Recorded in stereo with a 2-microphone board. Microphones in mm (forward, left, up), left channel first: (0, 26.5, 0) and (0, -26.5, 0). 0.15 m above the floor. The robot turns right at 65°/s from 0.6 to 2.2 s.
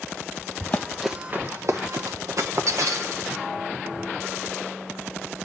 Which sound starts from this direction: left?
Running footsteps, at 0.6 s.